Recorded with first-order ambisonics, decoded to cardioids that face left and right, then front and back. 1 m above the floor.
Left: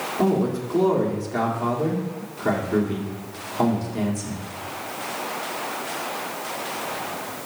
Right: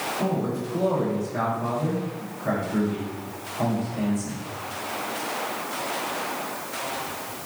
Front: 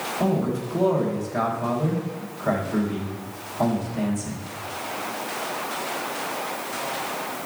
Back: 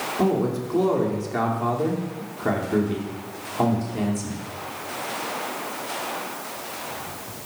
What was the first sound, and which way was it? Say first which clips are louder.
A man speaking: left 4 dB, back 3 dB; 145° left.